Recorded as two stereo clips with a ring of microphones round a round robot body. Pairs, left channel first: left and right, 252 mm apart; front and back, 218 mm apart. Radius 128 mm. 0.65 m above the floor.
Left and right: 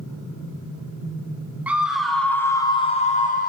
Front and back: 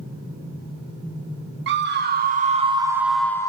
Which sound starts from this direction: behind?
A scream, at 1.7 s.